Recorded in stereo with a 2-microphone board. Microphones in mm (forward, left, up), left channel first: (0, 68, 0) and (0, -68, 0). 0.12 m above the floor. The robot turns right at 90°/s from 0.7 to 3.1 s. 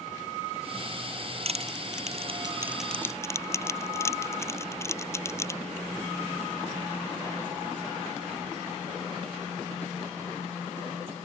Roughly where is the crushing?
Right.